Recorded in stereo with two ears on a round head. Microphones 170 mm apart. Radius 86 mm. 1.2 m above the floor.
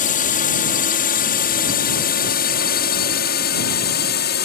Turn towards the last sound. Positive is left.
turn(degrees=55)  # may be behind; listen again after turning